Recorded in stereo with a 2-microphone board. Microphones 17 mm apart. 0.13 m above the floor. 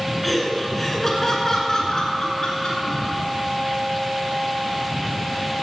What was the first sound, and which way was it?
Laughter, centre (ahead or behind).